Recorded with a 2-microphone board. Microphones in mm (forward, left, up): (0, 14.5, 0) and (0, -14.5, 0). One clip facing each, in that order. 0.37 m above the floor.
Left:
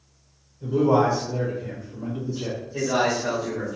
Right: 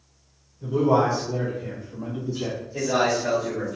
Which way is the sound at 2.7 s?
15° left (ahead or behind).